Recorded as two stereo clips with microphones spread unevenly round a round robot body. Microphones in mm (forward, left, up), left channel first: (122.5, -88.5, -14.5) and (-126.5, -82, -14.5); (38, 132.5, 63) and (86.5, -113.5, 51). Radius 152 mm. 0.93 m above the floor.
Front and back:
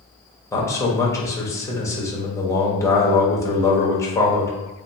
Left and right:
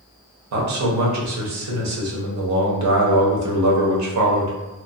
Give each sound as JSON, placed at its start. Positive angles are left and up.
{"t": 0.5, "sound": "a man speaking", "azimuth_deg": -80, "distance_m": 0.9}